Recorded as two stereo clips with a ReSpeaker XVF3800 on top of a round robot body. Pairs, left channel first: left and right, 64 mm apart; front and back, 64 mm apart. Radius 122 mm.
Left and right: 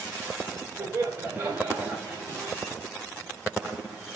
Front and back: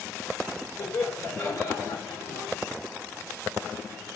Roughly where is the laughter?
Ahead right.